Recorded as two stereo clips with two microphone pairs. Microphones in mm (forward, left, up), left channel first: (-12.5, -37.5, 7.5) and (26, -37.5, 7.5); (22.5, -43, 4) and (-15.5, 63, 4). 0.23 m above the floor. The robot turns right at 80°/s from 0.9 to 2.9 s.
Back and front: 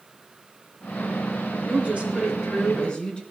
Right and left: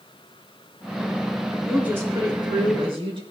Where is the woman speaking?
20° left, 3 m; by 3.2 s 120° left, 3 m.